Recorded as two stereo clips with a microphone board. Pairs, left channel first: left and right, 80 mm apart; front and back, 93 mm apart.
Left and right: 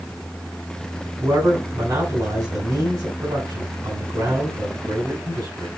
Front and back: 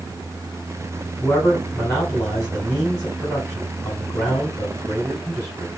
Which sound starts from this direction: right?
A man speaking, at 1.2 s.